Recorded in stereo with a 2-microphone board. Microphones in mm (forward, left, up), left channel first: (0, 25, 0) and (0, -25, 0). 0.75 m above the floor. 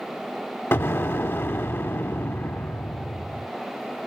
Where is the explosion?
50° left (ahead or behind), 0.8 m.